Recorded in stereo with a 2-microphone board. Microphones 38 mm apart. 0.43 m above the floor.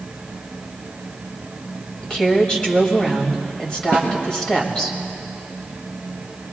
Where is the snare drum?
80° left, 3.5 m.